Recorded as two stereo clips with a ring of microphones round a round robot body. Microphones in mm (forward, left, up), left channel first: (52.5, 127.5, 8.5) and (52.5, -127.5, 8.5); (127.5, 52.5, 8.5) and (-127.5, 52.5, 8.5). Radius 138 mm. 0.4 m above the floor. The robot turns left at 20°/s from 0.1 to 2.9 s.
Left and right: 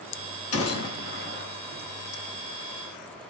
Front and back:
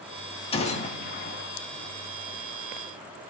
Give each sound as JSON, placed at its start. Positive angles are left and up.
{"t": 0.5, "sound": "a gunshot", "azimuth_deg": 65, "distance_m": 2.0}